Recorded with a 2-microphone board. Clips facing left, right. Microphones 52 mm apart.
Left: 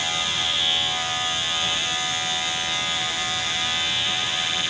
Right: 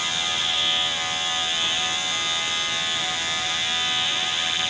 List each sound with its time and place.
Only background noise.